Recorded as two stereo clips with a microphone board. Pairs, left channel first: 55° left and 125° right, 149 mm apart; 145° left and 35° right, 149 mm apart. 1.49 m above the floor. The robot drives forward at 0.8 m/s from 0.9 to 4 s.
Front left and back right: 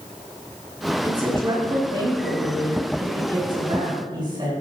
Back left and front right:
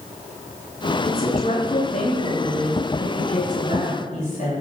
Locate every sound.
1.0 s a woman speaking: 175° left, 4 m; by 4.5 s straight behind, 6 m